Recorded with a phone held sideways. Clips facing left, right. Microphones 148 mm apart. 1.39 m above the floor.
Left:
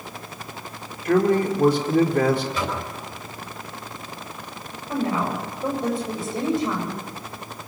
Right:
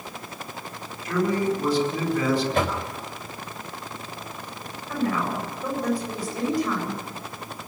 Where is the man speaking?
60° left (ahead or behind), 4 m.